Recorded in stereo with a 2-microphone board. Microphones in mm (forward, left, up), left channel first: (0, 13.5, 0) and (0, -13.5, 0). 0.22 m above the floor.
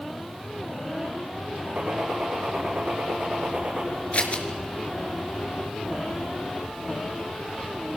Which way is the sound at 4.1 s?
45° left (ahead or behind).